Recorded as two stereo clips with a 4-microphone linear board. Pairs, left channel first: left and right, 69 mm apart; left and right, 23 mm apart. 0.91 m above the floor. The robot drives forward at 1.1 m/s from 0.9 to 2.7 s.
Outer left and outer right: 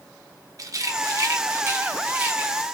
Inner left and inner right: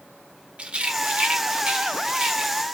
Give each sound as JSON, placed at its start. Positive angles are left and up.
{"t": 0.6, "sound": "a rattle", "side_deg": -55, "distance_m": 0.9}